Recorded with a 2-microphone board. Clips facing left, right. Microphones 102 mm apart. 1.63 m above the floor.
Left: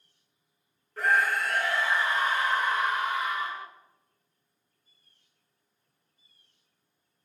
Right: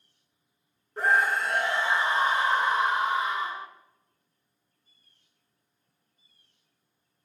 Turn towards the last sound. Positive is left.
turn(degrees=-25)  # may be behind; listen again after turning